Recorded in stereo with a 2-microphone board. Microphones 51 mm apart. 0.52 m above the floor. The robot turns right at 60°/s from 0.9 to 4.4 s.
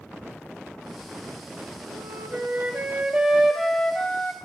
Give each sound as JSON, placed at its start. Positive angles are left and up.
{"t": 1.9, "sound": "a flute", "azimuth_deg": -100, "distance_m": 1.5}